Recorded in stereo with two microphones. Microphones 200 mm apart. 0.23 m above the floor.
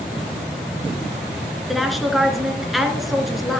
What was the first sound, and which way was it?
A woman speaking, centre (ahead or behind).